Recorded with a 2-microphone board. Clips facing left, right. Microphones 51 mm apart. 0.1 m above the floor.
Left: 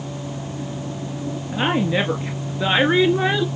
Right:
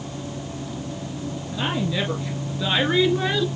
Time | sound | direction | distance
1.5 | a woman speaking | 35° left (ahead or behind) | 2.0 m